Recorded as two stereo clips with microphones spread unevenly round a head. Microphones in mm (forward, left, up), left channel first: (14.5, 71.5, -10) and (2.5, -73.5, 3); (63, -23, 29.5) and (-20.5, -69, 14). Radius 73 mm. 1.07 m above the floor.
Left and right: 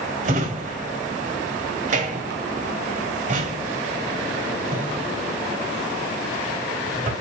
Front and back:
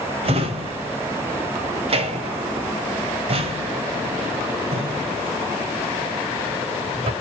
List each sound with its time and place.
0.2 s a drawer: 130° right, 1.7 m